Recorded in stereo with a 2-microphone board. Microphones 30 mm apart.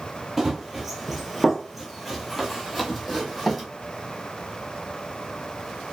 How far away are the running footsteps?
About 0.9 m.